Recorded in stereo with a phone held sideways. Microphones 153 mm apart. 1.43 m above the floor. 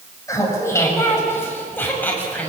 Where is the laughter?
20° left (ahead or behind), 6.5 m; by 2.5 s 10° left (ahead or behind), 7 m.